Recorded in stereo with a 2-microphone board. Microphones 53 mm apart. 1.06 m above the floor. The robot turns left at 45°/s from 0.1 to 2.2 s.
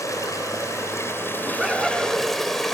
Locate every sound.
0.0 s running water: 100° left, 3 m; by 2.7 s 5° left, 3 m
1.4 s laughter: 150° right, 8.5 m; by 2.3 s 175° left, 8.5 m